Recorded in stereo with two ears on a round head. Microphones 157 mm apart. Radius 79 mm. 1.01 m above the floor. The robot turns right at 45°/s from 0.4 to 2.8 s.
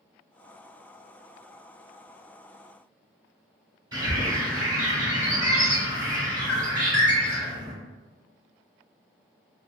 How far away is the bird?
About 1.5 m.